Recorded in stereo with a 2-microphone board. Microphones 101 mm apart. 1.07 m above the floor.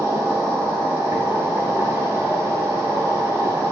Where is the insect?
30° right (ahead or behind), 0.9 m.